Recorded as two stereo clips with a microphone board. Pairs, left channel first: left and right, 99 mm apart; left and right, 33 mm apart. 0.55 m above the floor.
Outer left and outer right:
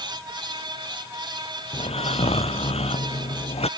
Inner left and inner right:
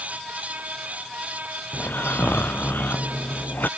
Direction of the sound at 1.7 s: 85° left.